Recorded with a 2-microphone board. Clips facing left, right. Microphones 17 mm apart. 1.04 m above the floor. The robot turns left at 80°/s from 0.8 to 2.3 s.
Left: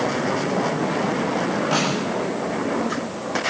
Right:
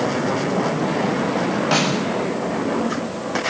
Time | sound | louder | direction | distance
1.7 | a snare drum | right 4 dB | 30° right (ahead or behind) | 6.5 m